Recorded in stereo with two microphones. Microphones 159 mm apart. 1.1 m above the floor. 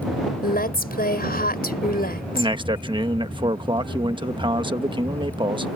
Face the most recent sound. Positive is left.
turn(degrees=-30)  # may be behind; listen again after turning